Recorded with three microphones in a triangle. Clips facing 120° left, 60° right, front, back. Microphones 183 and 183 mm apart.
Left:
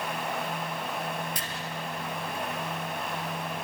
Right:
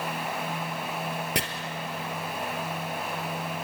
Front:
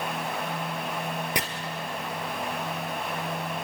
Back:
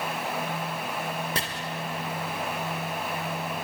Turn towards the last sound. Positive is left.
turn(degrees=-75)